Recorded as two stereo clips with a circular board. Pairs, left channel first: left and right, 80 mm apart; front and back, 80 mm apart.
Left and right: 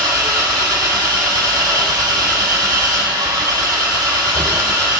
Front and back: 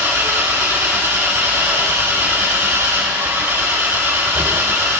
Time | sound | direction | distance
0.0 | an engine running | 120° right | 2.5 m